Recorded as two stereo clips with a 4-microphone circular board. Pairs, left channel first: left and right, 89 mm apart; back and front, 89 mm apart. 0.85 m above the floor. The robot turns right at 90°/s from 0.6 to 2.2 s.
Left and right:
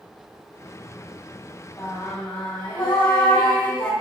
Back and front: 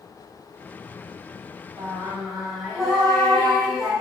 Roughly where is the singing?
Ahead left.